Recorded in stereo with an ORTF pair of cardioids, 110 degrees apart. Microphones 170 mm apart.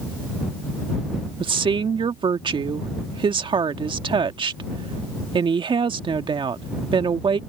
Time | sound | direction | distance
1.4 | a woman speaking | 30° right | ?